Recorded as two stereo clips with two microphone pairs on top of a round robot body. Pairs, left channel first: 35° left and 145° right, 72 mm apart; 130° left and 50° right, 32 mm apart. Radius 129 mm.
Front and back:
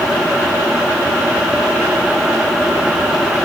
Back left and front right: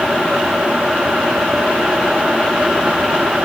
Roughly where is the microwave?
I don't hear a microwave.